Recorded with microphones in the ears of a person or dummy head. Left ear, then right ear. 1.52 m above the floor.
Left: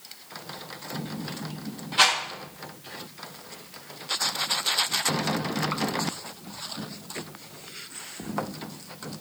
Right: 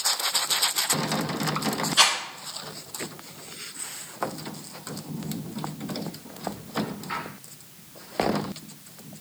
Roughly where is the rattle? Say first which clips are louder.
Even; right.